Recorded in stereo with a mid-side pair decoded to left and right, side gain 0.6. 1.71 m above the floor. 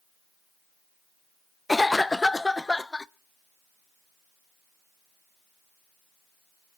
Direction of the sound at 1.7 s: 10° left.